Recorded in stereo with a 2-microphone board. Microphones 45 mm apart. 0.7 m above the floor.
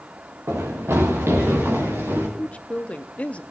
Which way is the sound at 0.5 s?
70° right (ahead or behind).